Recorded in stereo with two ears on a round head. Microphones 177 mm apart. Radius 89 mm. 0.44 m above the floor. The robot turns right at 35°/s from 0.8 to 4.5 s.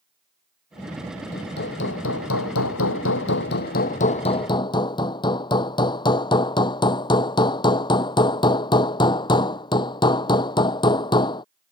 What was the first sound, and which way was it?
Hammering, 45° left.